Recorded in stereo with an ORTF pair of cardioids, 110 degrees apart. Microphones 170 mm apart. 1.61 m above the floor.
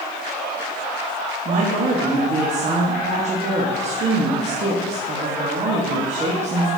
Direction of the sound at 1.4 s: 40° right.